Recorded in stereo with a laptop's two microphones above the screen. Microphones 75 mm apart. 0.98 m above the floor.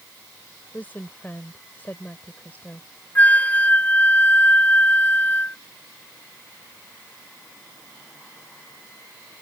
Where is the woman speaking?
20° left (ahead or behind).